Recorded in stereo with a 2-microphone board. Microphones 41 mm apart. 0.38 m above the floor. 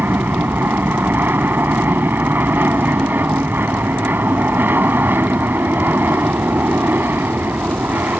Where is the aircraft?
60° right (ahead or behind).